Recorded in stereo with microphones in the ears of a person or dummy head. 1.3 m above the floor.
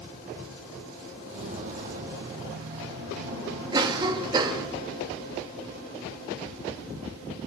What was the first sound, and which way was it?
Footsteps, 35° right (ahead or behind).